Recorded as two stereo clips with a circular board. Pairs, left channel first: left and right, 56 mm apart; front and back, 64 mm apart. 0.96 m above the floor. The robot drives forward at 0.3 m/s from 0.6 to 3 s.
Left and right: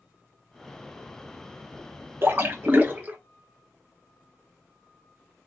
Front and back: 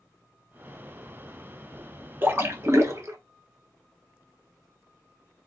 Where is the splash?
130° right, 0.5 m; by 3.2 s 145° right, 0.7 m.